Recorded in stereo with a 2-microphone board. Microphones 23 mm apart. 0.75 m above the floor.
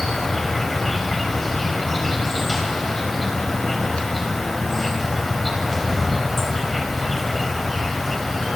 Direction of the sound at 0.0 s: 10° left (ahead or behind).